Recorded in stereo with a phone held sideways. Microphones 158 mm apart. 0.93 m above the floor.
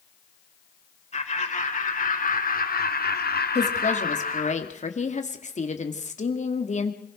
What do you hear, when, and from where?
1.1 s laughter: 50° left (ahead or behind), 4 m
3.5 s a woman speaking: 50° left (ahead or behind), 2 m